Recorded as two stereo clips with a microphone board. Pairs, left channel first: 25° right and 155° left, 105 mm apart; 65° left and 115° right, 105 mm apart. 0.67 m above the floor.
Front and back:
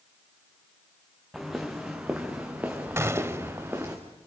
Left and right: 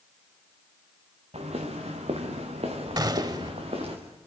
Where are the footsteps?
115° right, 3.5 m; by 4.0 s 135° right, 4.5 m.